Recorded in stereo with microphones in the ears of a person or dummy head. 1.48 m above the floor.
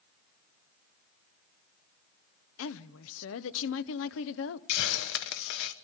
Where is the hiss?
70° left (ahead or behind), 0.8 m.